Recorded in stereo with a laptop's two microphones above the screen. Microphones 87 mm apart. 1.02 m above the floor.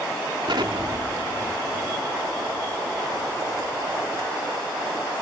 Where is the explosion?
70° right (ahead or behind).